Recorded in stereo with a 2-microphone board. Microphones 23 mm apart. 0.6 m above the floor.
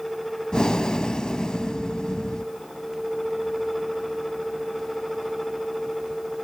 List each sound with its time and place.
0.5 s breathing: 45° left (ahead or behind), 0.7 m